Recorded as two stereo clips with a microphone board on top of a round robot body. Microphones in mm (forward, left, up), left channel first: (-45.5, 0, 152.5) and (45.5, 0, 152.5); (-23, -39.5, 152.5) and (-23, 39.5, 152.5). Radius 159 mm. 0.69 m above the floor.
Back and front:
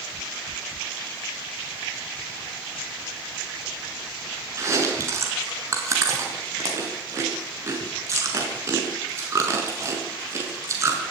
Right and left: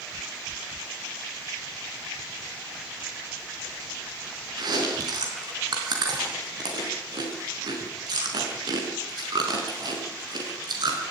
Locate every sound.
4.6 s chewing: 55° left, 5 m